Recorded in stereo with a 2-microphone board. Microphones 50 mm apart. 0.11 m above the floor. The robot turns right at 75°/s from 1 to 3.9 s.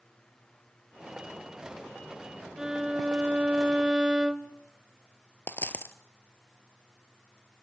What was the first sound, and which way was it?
A violin, 10° right (ahead or behind).